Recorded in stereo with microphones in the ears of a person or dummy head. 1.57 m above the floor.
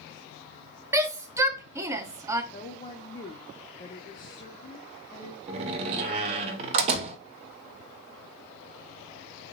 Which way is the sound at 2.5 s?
30° left (ahead or behind).